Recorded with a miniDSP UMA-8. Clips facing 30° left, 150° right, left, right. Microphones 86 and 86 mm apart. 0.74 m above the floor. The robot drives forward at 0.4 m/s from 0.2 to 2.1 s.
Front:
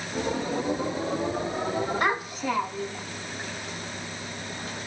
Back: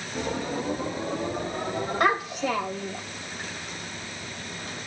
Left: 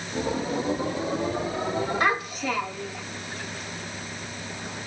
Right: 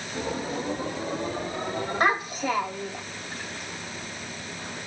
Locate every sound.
2.0 s a child speaking: 165° right, 1.6 m